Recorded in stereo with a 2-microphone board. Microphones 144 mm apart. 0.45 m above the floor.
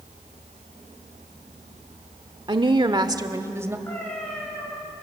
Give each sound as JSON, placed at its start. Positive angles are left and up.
{"t": 2.5, "sound": "a woman speaking", "side_deg": -35, "distance_m": 1.0}
{"t": 3.9, "sound": "a cat meowing", "side_deg": 15, "distance_m": 8.5}